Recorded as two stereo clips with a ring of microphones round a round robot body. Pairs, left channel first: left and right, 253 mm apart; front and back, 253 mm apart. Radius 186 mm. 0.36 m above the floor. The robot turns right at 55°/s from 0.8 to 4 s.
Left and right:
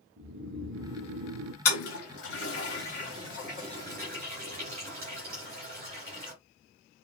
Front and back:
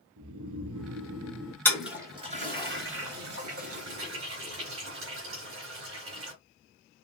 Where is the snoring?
150° right, 0.8 m; by 1.6 s 105° right, 0.8 m.